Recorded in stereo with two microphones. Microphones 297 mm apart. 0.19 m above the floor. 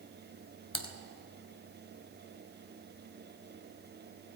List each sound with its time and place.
0.7 s typing on a keyboard: 70° left (ahead or behind), 1.1 m